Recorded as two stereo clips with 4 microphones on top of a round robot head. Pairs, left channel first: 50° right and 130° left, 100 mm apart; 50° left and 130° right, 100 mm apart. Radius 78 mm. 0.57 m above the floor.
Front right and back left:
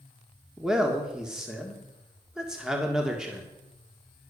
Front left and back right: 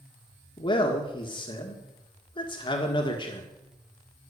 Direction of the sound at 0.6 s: 45° left.